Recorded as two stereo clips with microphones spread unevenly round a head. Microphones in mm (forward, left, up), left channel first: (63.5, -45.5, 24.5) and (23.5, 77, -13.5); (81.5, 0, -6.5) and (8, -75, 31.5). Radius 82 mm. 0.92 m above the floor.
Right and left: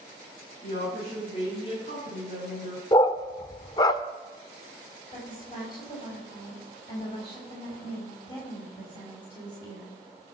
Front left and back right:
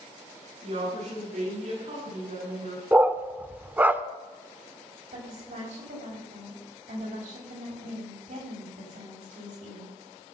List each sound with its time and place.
0.6 s a woman speaking: 125° right, 8.5 m; by 2.8 s 135° right, 8 m
2.9 s a dog barking: 95° right, 0.6 m
5.1 s a woman speaking: 140° right, 5 m